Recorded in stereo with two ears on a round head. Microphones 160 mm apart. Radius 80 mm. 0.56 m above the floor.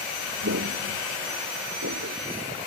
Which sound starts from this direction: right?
Footsteps, at 0.4 s.